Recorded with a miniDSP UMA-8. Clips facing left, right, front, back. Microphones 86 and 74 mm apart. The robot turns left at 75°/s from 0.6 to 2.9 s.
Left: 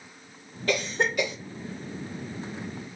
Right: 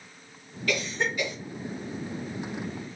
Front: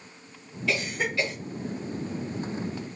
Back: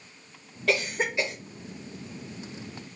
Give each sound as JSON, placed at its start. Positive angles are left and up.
{"t": 0.7, "sound": "a cough", "azimuth_deg": 150, "distance_m": 1.4}